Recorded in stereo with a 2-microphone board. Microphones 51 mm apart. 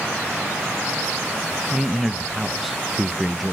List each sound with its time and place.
1.7 s a man speaking: centre (ahead or behind), 0.5 m